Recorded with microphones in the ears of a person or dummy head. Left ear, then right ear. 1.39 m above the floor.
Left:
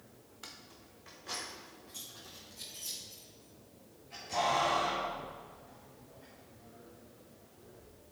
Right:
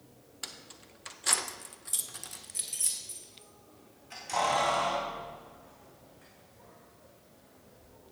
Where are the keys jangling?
20° right (ahead or behind), 0.6 m; by 7.9 s 35° right (ahead or behind), 3.5 m.